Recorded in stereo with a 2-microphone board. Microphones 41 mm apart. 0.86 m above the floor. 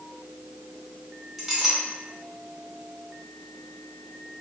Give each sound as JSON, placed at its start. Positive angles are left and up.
{"t": 1.4, "sound": "a clink", "side_deg": -5, "distance_m": 1.4}